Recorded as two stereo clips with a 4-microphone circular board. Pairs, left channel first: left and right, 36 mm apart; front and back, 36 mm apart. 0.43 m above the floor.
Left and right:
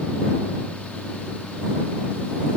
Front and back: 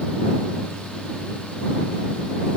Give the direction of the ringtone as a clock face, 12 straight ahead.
I don't hear a ringtone.